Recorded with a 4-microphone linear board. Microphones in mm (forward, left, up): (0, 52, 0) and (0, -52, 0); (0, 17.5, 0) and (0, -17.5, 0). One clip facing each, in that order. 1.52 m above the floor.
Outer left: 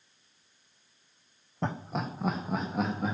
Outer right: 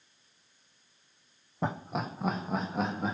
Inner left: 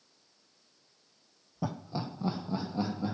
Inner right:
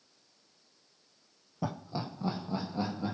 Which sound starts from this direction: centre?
Laughter, at 1.6 s.